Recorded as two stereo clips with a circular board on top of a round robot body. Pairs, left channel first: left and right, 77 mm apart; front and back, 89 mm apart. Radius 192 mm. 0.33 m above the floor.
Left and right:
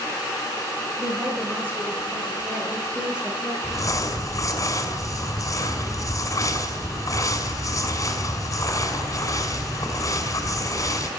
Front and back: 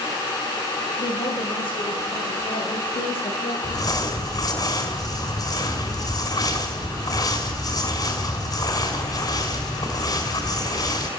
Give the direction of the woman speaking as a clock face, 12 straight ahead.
1 o'clock.